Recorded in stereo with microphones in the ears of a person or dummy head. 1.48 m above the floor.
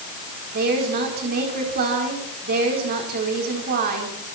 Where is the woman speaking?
50° right (ahead or behind), 4.5 m.